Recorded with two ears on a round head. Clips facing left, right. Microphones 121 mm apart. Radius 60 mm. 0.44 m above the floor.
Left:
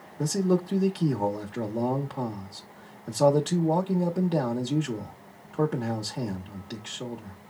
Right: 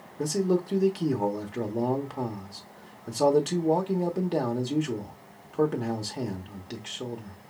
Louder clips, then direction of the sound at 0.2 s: Even; 5° right (ahead or behind).